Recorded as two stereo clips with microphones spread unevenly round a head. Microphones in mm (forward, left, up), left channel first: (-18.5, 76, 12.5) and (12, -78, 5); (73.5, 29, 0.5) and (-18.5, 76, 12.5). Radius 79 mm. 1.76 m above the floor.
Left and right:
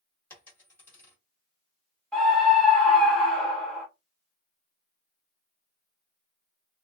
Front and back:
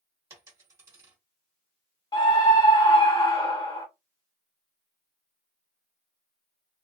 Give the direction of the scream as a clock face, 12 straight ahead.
11 o'clock.